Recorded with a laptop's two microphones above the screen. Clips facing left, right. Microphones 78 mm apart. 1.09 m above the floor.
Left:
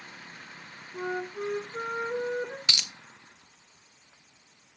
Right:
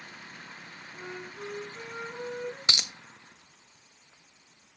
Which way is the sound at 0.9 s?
50° left (ahead or behind).